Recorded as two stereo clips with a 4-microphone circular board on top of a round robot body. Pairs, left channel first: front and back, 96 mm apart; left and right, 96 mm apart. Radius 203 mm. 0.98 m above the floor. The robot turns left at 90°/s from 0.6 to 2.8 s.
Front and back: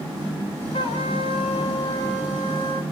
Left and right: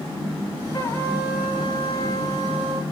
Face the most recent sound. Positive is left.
turn(degrees=-150)